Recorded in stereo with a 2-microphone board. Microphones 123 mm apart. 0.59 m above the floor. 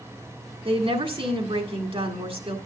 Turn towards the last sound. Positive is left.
turn(degrees=-50)  # may be behind; listen again after turning